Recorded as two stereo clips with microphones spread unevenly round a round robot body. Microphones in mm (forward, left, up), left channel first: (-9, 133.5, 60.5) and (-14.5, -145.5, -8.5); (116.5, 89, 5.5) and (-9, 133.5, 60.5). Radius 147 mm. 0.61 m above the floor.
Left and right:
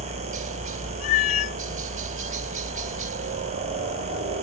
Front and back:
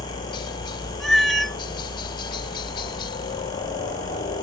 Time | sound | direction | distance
0.0 | a helicopter | 45° right | ?
1.0 | a cat meowing | 75° left | ?